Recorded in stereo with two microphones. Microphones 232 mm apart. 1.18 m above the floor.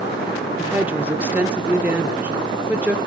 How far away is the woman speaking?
About 1.2 m.